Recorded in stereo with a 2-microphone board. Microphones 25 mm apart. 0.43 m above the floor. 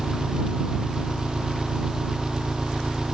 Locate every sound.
0.0 s an engine running: 30° right (ahead or behind)